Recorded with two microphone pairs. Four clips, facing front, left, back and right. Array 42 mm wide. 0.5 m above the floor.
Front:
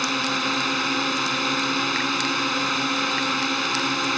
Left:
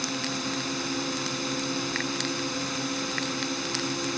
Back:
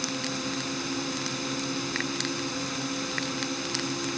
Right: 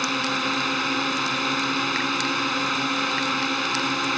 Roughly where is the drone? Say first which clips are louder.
Right 7 dB, front 8 dB; ahead right.